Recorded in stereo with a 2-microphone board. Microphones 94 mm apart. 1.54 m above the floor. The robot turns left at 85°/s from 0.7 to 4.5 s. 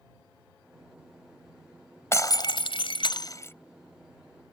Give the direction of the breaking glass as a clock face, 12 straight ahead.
7 o'clock.